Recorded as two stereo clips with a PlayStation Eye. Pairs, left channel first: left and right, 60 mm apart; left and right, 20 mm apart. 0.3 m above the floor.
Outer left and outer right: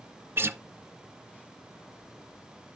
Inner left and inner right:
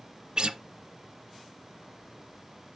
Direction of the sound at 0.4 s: 40° right (ahead or behind).